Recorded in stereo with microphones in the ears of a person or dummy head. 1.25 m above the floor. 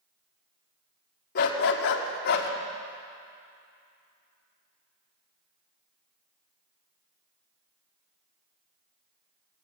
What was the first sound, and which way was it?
A dog barking, 55° left (ahead or behind).